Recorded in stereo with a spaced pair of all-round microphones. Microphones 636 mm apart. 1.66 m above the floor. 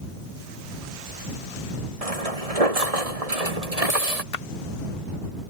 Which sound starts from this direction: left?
A splash, at 4.3 s.